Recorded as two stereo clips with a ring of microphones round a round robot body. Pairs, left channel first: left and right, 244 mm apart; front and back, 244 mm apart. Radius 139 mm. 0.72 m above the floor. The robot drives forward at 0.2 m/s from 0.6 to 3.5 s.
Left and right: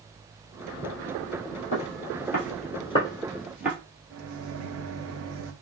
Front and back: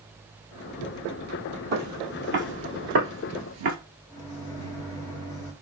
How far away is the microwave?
About 1.0 m.